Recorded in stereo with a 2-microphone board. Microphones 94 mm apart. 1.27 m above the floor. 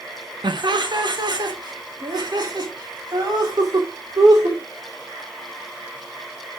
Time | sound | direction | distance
0.4 | laughter | 60° right (ahead or behind) | 1.4 m